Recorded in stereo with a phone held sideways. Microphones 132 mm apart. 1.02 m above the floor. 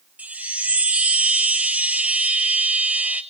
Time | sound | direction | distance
0.2 | a chime | 10° right (ahead or behind) | 1.0 m